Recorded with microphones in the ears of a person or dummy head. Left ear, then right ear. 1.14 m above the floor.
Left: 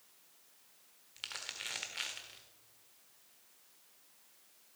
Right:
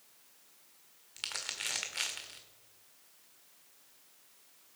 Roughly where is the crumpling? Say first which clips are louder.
Right 5 dB; centre.